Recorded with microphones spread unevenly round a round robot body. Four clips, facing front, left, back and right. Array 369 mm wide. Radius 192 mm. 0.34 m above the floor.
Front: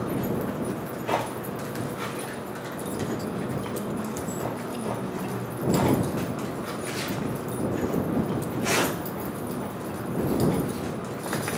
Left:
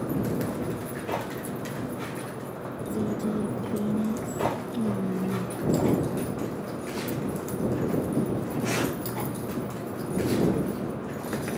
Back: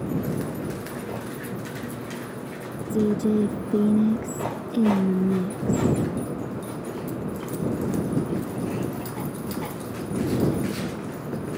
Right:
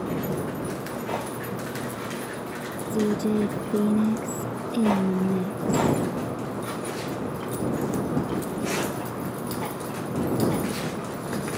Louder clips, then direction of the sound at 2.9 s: Right 5 dB, back 10 dB; 160° right.